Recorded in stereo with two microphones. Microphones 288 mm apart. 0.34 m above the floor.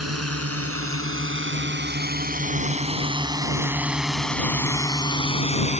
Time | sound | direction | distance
0.0 | a drone | 55° right (ahead or behind) | ?